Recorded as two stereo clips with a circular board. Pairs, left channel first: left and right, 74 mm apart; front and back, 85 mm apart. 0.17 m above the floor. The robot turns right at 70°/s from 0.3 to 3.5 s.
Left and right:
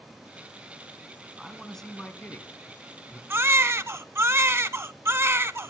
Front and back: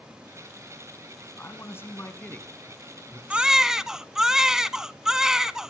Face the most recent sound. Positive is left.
turn(degrees=-100)